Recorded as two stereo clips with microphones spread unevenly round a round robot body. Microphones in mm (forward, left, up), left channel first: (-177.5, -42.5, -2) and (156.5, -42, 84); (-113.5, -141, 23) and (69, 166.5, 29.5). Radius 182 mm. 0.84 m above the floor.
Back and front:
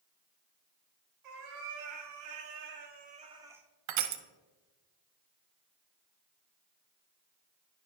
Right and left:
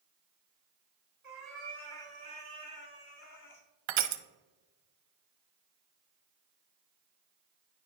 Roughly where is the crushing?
Ahead left.